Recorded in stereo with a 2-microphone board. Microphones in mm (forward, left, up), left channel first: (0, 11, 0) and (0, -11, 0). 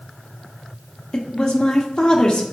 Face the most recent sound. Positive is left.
turn(degrees=45)  # may be behind; listen again after turning